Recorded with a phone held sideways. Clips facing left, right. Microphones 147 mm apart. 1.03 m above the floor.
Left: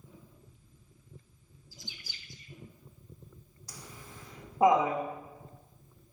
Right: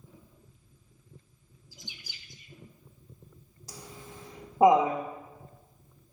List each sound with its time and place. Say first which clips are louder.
1.7 s a bird: even; 15° right (ahead or behind), 0.9 m
3.7 s laughter: right 4 dB; 25° right (ahead or behind), 1.0 m